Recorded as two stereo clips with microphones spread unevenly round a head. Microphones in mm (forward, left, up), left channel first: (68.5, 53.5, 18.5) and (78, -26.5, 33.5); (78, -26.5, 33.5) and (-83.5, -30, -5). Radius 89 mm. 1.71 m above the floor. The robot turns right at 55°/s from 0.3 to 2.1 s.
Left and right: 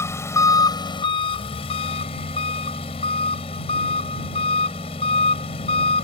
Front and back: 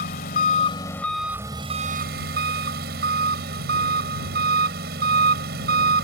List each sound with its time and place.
0.0 s an engine running: 40° left; by 6.0 s 140° left